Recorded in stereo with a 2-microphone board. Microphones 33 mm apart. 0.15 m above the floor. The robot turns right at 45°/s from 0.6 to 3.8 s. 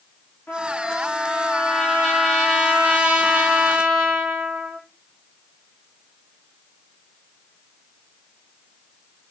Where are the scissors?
I don't hear scissors.